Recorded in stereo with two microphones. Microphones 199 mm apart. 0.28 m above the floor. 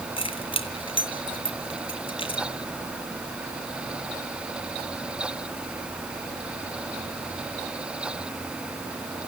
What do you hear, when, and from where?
0.2 s keys jangling: 25° left (ahead or behind), 2.5 m